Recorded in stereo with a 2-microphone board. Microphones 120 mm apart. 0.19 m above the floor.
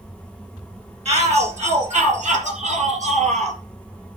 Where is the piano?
I don't hear a piano.